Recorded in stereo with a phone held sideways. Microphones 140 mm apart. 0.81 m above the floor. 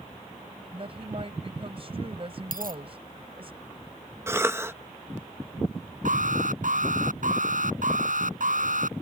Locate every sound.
0.7 s a woman speaking: 45° right (ahead or behind)
2.5 s a dropped coin: 85° right
4.3 s a cough: 20° right (ahead or behind)
6.0 s an alarm: 70° right (ahead or behind)